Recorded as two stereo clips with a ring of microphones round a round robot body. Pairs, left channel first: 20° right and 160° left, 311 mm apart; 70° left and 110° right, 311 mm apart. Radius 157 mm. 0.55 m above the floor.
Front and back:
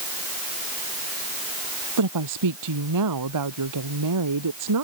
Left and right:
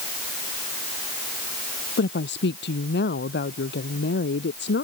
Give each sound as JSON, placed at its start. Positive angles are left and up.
{"t": 2.0, "sound": "a woman speaking", "azimuth_deg": 125}